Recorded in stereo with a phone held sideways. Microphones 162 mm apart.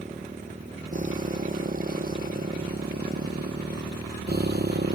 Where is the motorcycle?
50° right (ahead or behind); by 5.0 s 85° right.